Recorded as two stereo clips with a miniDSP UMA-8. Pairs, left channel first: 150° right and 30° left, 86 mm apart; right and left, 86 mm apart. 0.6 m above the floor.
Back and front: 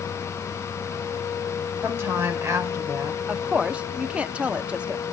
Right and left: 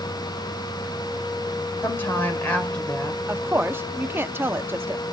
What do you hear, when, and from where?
1.8 s a woman speaking: 30° right, 3 m; by 3.2 s 10° right, 3 m
3.3 s a woman speaking: 85° left, 0.6 m